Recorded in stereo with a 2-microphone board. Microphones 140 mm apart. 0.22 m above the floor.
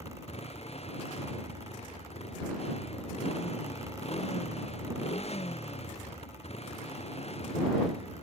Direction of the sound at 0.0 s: 50° left (ahead or behind).